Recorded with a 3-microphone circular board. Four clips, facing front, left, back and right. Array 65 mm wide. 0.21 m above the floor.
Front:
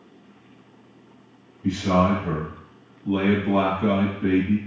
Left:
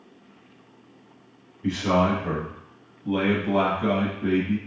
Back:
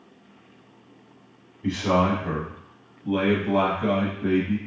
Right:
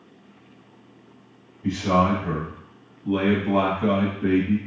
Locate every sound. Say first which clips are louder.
1.6 s a man speaking: right 1 dB, front 1 dB; 145° left, 1.4 m; by 4.6 s 40° right, 1.3 m